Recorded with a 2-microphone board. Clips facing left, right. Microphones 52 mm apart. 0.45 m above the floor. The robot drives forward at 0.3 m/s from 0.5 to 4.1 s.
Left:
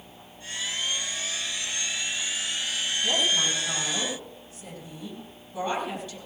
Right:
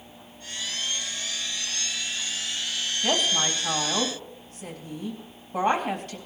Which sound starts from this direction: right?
A woman speaking, at 3.0 s.